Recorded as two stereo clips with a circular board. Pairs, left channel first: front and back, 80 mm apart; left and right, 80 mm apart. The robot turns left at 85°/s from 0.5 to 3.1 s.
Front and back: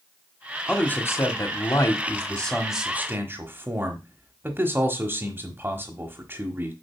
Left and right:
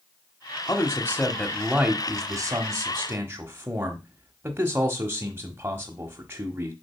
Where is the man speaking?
70° left, 1.2 m; by 6.7 s 135° right, 1.2 m.